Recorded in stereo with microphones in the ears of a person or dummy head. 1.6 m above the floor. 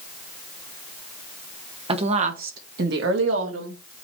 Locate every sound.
1.9 s a woman speaking: 25° right (ahead or behind), 2 m; by 4.0 s 90° right, 3.5 m